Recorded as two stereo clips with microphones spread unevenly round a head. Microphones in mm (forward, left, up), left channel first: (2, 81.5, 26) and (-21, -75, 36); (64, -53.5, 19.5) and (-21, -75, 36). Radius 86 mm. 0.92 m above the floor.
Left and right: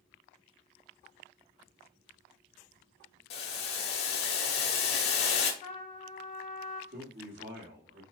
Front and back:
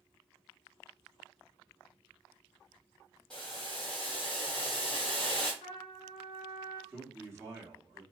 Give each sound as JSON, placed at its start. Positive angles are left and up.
{"t": 3.3, "sound": "boiling", "azimuth_deg": 100, "distance_m": 1.0}
{"t": 5.6, "sound": "a trumpet", "azimuth_deg": 45, "distance_m": 1.6}
{"t": 6.9, "sound": "a man speaking", "azimuth_deg": -100, "distance_m": 2.0}